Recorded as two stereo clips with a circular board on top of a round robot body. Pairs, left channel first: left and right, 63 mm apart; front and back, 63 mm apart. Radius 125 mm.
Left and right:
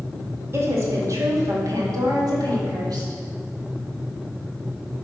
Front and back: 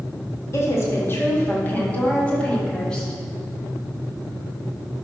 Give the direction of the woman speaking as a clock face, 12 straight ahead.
1 o'clock.